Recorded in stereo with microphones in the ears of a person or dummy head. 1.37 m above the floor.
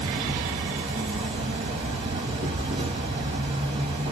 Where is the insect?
30° right (ahead or behind), 1.5 m.